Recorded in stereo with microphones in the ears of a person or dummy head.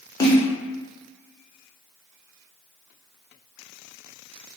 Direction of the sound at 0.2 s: 15° left (ahead or behind).